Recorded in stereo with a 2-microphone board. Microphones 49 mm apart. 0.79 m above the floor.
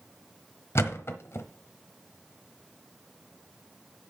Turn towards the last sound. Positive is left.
turn(degrees=60)  # may be behind; listen again after turning